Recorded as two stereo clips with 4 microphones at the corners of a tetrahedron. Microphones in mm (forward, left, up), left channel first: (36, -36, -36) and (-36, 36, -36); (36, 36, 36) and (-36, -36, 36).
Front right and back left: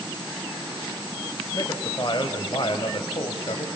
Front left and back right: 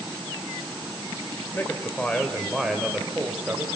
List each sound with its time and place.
1.5 s a man speaking: 15° right, 1.8 m; by 3.7 s 65° right, 2 m